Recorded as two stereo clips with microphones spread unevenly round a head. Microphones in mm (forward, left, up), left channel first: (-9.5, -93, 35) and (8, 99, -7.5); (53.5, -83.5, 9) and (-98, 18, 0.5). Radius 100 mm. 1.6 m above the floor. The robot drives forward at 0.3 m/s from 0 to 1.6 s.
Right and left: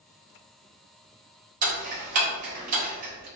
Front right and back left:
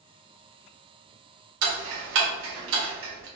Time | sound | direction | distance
1.6 | ticking | 140° left | 1.1 m